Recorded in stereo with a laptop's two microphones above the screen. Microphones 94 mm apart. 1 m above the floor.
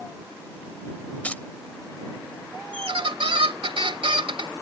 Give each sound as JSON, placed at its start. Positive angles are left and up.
{"t": 1.2, "sound": "keys jangling", "side_deg": 15}
{"t": 2.7, "sound": "a squeak", "side_deg": -80}